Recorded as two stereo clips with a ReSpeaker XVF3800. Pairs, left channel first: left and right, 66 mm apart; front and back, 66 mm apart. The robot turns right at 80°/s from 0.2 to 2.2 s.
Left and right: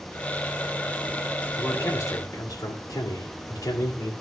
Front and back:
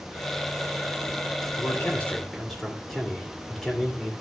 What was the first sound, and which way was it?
A man speaking, 35° left.